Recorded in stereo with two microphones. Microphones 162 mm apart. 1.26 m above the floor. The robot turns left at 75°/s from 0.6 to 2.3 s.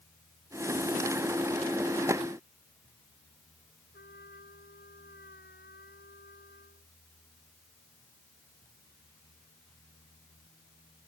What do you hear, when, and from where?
3.9 s a trumpet: 85° left